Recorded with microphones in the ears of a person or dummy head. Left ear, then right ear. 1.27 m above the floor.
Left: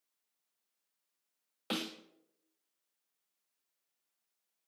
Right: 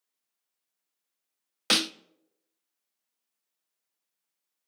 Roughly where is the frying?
No frying in this recording.